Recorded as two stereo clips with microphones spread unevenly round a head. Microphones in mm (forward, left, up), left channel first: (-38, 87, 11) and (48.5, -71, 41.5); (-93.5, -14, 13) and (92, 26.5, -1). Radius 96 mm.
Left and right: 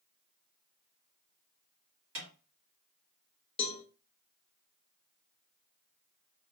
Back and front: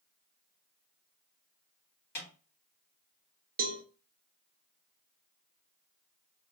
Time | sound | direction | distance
2.1 | a snare drum | 90° right | 2.5 m
3.6 | a cowbell | 55° left | 0.7 m